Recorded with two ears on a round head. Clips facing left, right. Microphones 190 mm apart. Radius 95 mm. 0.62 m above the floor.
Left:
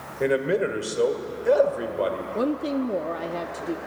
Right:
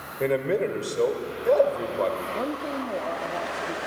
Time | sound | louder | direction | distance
0.2 | a man speaking | left 1 dB | 10° left (ahead or behind) | 1.9 m
2.4 | a woman speaking | left 5 dB | 40° left (ahead or behind) | 0.8 m